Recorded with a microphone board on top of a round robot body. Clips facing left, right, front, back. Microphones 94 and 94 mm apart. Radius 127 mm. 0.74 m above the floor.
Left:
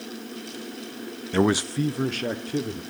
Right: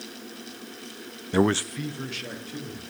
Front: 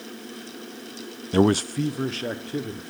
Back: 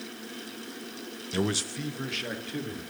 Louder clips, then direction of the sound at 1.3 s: Left 1 dB, front 11 dB; 20° right.